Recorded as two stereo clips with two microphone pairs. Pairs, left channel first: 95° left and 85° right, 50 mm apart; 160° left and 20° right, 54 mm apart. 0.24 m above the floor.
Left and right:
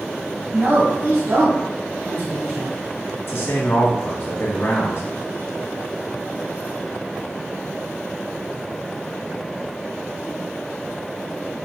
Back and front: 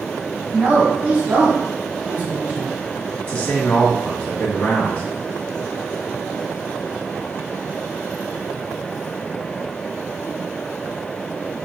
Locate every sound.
0.5 s a woman speaking: 70° right, 1.4 m
3.3 s a man speaking: 100° left, 1.5 m